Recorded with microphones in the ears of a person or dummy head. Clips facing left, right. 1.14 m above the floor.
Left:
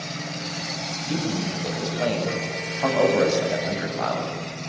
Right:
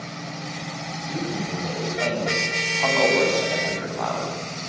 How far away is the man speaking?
About 7.5 m.